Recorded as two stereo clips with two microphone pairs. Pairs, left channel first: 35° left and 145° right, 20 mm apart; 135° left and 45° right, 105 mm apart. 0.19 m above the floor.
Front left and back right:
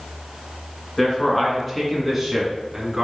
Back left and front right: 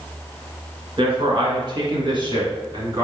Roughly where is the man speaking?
Ahead right.